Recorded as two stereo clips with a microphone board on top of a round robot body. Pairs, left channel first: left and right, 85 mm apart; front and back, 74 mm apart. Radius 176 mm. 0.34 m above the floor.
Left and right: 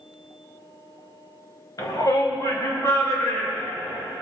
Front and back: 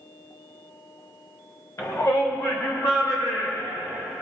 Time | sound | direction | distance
1.8 | a shout | 50° left | 2.5 m